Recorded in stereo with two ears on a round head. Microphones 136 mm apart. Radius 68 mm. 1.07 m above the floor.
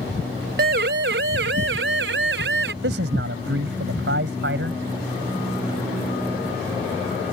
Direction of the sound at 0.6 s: 70° right (ahead or behind).